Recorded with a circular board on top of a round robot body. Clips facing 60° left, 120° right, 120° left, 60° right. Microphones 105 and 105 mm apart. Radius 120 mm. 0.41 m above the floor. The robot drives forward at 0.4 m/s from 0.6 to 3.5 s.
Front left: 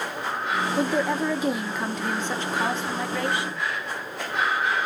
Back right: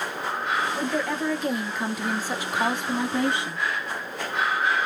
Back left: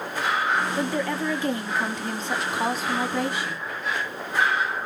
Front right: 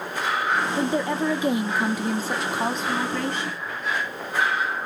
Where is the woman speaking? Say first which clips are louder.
Front left 3 dB, front right 2 dB; 10° right, 1.0 m; by 3.6 s 170° right, 1.0 m.